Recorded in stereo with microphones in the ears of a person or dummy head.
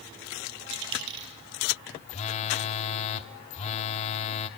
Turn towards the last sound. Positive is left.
turn(degrees=40)  # may be behind; listen again after turning